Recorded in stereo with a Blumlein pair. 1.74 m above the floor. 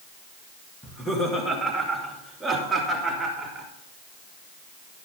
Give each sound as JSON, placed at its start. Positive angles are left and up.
{"t": 0.8, "sound": "laughter", "azimuth_deg": 10, "distance_m": 2.0}